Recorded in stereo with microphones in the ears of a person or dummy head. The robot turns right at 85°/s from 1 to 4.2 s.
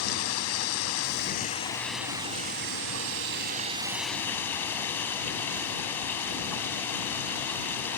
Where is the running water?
100° left; by 8.0 s 10° left.